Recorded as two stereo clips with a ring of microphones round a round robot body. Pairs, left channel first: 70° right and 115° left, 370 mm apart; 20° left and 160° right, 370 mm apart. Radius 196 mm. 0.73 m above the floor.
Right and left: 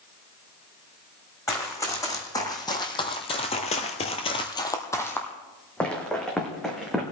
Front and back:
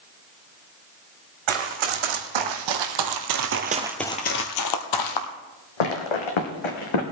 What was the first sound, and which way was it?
Running footsteps, 150° right.